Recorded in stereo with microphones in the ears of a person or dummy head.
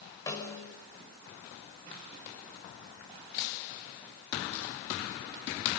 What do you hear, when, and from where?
0.3 s a snare drum: 25° left (ahead or behind), 5 m